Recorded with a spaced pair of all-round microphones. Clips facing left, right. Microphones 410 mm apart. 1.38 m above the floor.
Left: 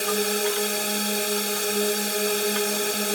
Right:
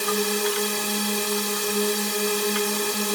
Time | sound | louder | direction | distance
0.0 | a drone | even | 10° right (ahead or behind) | ?